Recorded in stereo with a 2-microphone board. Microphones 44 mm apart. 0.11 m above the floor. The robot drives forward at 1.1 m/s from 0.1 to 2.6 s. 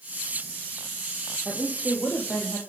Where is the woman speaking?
50° left (ahead or behind), 4.5 m; by 2.6 s 60° left (ahead or behind), 4 m.